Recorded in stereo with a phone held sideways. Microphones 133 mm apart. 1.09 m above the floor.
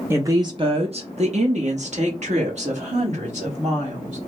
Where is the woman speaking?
20° right (ahead or behind), 0.5 m; by 4.2 s 60° right (ahead or behind), 2 m.